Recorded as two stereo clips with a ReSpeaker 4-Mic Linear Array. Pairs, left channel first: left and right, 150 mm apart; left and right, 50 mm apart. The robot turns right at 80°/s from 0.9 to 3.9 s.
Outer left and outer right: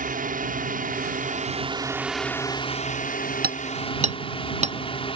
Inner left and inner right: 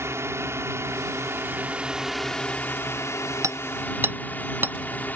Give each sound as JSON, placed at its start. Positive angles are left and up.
{"t": 0.0, "sound": "a drone", "azimuth_deg": -100}
{"t": 3.4, "sound": "hammering", "side_deg": -85}